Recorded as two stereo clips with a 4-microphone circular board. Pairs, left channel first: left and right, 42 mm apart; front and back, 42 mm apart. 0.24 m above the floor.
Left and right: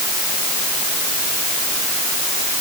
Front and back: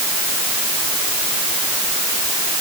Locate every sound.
Only background noise.